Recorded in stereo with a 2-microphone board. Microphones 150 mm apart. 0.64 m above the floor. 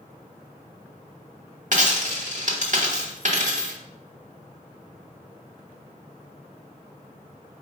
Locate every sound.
1.7 s a dropped coin: 55° right (ahead or behind), 0.9 m